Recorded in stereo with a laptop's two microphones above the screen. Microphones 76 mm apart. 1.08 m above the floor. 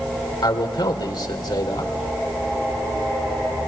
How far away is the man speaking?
About 3.5 m.